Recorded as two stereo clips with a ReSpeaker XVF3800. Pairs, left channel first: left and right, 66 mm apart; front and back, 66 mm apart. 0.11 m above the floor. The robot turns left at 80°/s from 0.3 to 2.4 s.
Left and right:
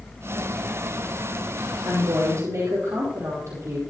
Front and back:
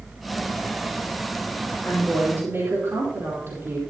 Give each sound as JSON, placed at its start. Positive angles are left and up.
{"t": 1.8, "sound": "a woman speaking", "azimuth_deg": -85, "distance_m": 4.5}